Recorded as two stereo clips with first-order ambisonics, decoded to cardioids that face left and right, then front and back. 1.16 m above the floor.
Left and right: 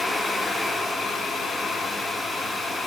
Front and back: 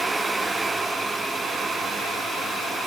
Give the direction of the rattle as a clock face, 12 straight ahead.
No rattle in this recording.